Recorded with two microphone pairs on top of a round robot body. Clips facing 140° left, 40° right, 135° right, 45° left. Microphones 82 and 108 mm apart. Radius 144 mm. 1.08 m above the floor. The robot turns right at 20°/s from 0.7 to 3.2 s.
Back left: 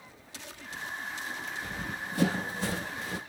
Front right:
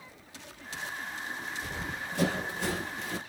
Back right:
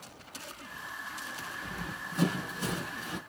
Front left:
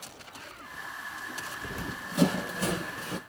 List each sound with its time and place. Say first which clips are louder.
1.6 s running footsteps: even, front left 4 dB; 40° left, 2 m; by 3.2 s 100° left, 1.3 m